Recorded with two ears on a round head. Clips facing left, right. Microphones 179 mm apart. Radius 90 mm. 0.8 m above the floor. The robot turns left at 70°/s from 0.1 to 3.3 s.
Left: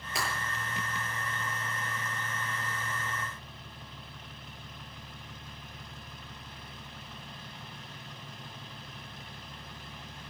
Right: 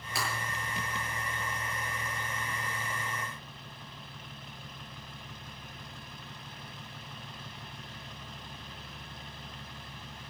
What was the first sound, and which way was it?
Breaking glass, 20° left (ahead or behind).